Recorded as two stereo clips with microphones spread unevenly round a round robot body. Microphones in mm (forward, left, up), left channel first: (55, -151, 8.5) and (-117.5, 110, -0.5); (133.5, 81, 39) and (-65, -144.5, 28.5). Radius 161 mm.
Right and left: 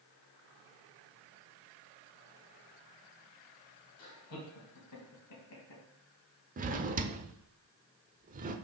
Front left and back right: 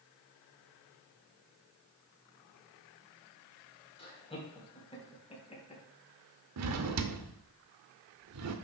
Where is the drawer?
170° right, 0.9 m.